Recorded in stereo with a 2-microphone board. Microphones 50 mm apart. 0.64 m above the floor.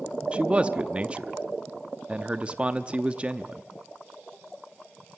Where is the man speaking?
25° right (ahead or behind), 0.7 m.